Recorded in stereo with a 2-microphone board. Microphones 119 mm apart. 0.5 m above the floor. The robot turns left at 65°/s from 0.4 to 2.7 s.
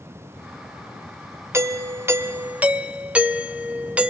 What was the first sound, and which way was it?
A doorbell, 20° right (ahead or behind).